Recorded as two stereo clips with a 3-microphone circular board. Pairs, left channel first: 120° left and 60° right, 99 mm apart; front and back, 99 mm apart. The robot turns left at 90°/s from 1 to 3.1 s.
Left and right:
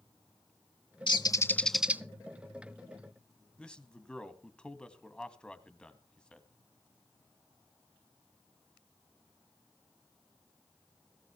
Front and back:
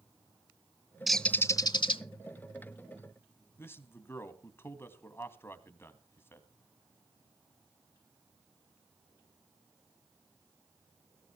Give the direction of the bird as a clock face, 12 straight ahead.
9 o'clock.